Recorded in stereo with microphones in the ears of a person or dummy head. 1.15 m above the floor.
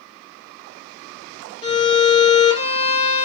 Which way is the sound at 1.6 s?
35° left (ahead or behind).